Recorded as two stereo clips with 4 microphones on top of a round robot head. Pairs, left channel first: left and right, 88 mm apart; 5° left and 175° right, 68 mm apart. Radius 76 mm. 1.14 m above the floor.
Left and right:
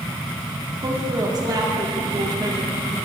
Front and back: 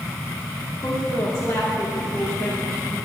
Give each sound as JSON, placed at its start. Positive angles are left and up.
{"t": 0.8, "sound": "a woman speaking", "azimuth_deg": -50, "distance_m": 2.5}